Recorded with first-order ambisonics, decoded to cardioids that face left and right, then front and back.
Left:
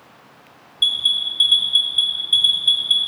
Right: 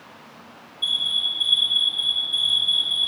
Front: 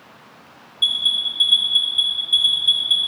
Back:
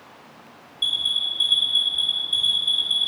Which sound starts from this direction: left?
An alarm, at 0.8 s.